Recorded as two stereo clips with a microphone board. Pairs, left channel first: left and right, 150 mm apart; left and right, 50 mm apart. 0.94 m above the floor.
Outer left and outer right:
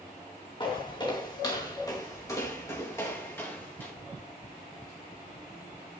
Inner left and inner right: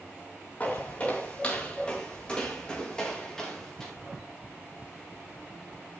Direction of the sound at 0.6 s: 30° left (ahead or behind).